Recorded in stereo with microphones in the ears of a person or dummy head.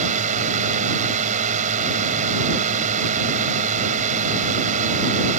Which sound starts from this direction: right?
A drone, at 0.0 s.